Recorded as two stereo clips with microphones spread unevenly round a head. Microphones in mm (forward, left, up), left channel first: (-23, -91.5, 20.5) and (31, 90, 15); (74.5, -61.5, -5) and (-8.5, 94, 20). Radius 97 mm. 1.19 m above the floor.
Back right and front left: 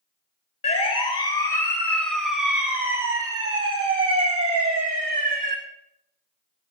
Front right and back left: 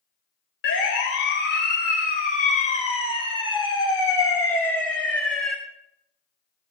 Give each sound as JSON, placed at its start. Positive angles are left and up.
{"t": 0.6, "sound": "a siren", "azimuth_deg": -50, "distance_m": 3.5}